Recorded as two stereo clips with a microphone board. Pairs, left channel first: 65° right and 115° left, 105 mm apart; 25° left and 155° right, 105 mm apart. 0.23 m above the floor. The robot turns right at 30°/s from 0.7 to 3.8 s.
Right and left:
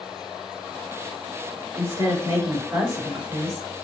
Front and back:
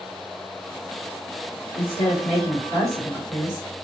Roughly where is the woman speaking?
Left.